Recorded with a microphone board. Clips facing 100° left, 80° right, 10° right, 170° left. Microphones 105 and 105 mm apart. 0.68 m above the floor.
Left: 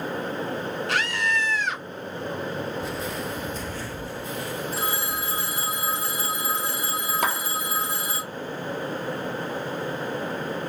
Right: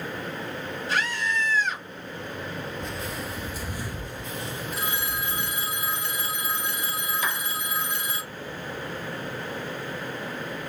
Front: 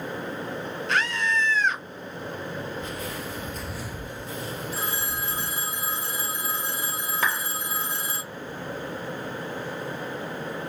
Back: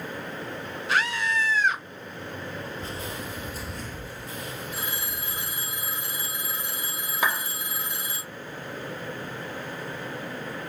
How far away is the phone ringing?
About 1.1 m.